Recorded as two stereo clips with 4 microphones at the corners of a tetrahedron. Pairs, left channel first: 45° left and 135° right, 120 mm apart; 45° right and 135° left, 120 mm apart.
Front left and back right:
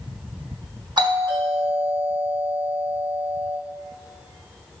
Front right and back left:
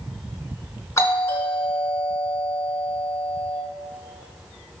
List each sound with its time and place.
1.0 s a doorbell: 100° right, 3.5 m